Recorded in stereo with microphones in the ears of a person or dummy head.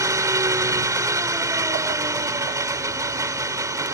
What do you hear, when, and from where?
0.0 s an engine running: 20° right (ahead or behind)